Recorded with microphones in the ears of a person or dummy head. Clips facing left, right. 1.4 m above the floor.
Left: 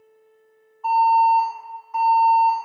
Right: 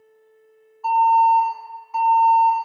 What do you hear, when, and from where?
0.8 s an alarm: 5° right (ahead or behind), 1.1 m